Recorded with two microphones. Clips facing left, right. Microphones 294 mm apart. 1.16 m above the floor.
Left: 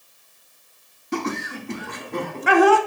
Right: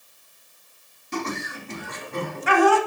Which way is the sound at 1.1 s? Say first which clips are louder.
Left 4 dB; 70° left (ahead or behind).